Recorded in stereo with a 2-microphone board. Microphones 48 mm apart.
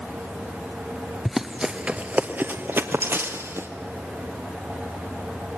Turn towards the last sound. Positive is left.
turn(degrees=-60)  # may be behind; listen again after turning